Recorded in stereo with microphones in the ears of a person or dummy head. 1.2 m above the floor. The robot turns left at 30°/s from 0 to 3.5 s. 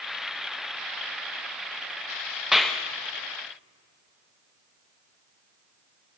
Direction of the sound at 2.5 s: 10° right (ahead or behind).